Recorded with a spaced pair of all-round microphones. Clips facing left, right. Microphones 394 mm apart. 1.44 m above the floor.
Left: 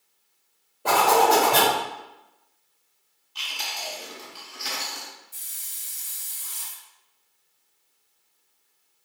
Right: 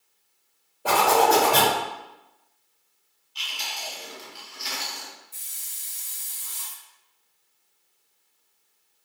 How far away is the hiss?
About 0.6 m.